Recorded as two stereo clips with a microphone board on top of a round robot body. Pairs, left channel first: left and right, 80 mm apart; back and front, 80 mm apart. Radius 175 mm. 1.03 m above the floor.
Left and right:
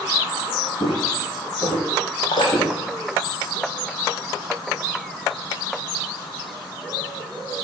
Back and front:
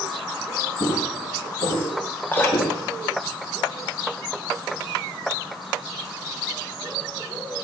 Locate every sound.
0.8 s footsteps: 140° left, 3 m; by 2.8 s 155° left, 2 m
2.3 s dripping: 115° left, 2.5 m